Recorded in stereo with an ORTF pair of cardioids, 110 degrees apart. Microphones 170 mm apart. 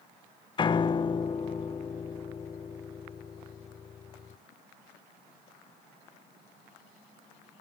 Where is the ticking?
No ticking in this recording.